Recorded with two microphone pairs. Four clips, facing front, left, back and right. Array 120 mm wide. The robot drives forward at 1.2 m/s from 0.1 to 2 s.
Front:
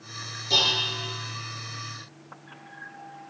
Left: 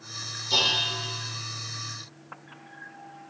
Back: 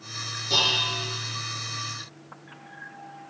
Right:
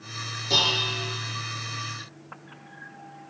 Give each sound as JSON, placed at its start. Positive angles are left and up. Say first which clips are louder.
{"t": 0.5, "sound": "dishes clattering", "louder": "right 2 dB, back 1 dB", "azimuth_deg": -80, "distance_m": 5.0}